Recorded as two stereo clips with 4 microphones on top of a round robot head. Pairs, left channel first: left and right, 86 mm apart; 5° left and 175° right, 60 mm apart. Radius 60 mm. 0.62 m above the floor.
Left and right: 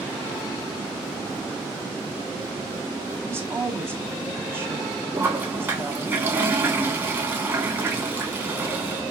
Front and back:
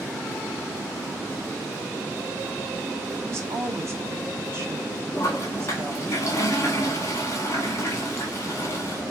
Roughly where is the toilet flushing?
Ahead right.